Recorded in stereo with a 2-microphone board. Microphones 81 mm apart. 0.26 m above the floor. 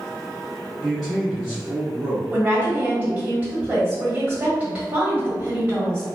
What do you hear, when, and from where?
0.8 s a man speaking: 5° left (ahead or behind), 1.3 m
2.3 s a woman speaking: 20° right (ahead or behind), 1.5 m